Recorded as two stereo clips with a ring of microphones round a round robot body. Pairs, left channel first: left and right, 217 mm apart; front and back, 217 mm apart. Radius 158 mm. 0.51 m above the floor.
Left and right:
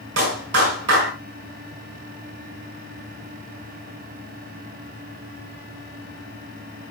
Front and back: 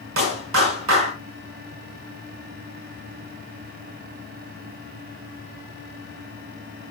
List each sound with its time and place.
0.2 s a clap: 140° right, 5.5 m